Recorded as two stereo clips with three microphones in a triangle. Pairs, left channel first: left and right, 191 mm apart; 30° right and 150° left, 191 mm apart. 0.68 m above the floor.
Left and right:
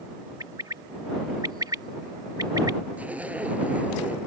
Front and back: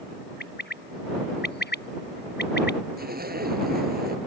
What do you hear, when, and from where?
0.4 s a bird: 20° right
3.0 s a zipper: 175° right